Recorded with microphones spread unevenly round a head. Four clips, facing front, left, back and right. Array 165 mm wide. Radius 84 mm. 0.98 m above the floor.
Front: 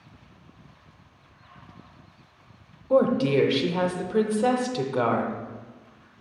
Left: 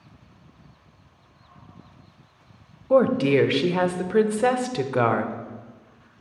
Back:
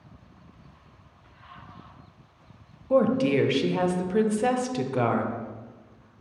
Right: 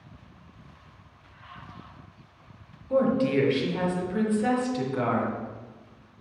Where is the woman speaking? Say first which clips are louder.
Left 5 dB, front 1 dB; 100° left, 0.6 m.